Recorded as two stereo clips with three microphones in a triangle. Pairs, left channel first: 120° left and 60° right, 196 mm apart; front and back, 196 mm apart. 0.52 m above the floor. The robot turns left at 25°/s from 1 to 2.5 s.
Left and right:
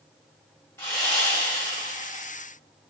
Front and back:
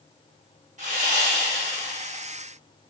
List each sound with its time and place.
0.8 s sawing: 170° right, 1.4 m; by 2.3 s 155° left, 1.4 m